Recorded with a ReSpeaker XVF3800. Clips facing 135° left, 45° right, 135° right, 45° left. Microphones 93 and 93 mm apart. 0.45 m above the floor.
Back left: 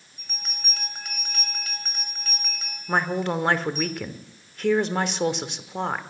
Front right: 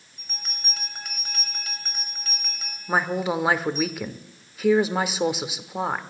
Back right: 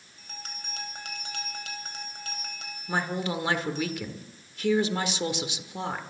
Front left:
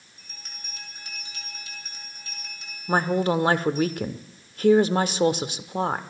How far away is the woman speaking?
About 0.9 m.